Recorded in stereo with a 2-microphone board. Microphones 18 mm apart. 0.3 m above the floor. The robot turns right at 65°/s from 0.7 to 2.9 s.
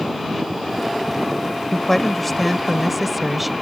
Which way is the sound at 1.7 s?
15° left (ahead or behind).